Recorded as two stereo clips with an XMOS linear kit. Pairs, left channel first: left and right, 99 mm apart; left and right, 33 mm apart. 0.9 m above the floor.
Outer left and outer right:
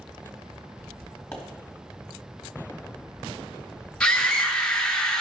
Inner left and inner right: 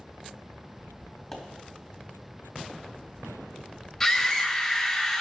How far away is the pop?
About 1.6 m.